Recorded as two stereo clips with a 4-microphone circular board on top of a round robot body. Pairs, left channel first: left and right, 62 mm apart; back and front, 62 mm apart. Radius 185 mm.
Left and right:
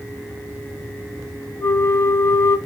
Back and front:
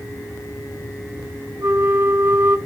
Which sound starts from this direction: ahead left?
A flute, at 1.6 s.